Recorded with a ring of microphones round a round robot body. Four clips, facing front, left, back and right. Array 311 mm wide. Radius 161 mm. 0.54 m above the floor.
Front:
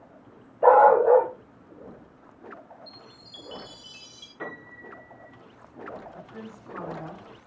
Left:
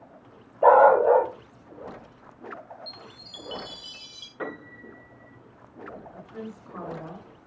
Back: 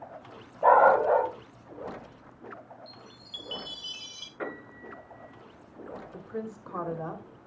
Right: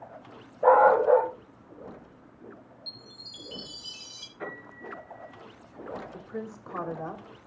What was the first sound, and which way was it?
A dog barking, 75° left.